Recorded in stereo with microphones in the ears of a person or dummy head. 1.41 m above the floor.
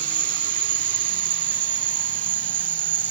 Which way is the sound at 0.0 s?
15° right (ahead or behind).